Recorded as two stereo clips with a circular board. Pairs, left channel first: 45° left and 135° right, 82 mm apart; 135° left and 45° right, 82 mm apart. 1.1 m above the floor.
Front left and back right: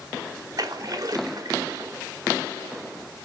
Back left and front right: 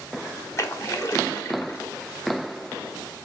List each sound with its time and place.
0.6 s a splash: 175° right, 1.8 m